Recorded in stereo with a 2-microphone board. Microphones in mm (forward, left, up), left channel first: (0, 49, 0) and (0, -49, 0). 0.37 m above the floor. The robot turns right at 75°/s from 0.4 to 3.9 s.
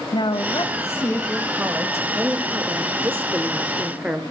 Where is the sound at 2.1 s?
5° right (ahead or behind), 0.9 m; by 4.2 s 10° right (ahead or behind), 0.9 m.